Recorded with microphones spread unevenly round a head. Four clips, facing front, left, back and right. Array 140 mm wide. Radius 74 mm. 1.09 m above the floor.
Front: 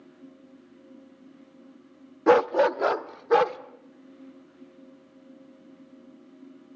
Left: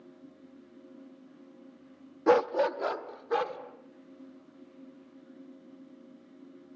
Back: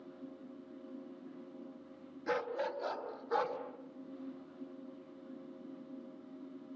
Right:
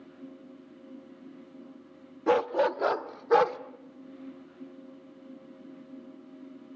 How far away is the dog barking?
About 0.7 m.